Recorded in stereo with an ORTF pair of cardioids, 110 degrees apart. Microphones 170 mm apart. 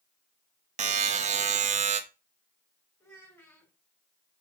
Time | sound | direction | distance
0.8 | a buzzer | 45° right | 0.7 m
3.0 | a child speaking | 15° left | 3 m